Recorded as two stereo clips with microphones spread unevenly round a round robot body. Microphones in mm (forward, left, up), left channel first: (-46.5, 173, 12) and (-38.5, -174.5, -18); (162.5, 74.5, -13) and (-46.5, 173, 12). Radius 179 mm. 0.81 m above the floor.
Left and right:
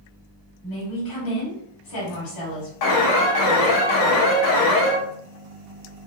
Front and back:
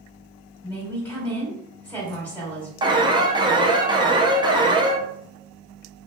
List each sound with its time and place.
0.6 s a woman speaking: 55° left, 1.7 m
2.8 s an alarm: 80° left, 0.7 m